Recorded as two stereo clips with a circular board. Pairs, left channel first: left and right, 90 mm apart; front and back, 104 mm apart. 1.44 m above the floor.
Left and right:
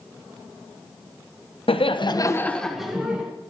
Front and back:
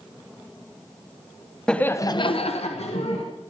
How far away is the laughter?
About 1.1 m.